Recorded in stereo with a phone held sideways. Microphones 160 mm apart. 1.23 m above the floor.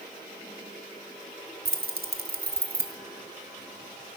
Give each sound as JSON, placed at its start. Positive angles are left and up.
{"t": 1.6, "sound": "keys jangling", "side_deg": -70, "distance_m": 0.8}